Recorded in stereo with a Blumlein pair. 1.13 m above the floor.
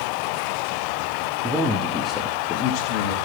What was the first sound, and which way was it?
A man speaking, 15° right.